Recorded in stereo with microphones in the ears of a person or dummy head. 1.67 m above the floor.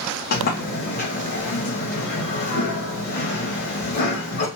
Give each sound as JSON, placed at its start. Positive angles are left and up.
{"t": 0.3, "sound": "a sliding door", "side_deg": 55, "distance_m": 1.3}